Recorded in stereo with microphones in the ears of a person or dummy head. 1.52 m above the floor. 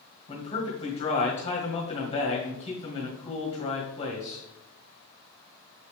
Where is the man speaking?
25° left (ahead or behind), 1.9 m.